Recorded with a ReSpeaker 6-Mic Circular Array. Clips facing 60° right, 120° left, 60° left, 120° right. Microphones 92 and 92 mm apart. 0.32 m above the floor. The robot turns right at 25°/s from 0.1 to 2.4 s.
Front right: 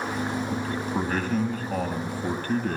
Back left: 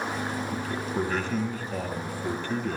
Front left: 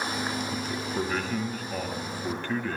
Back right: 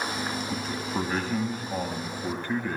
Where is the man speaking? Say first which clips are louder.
Front right 2 dB, back right 1 dB; 95° right, 2.5 m; by 2.8 s 50° right, 2.5 m.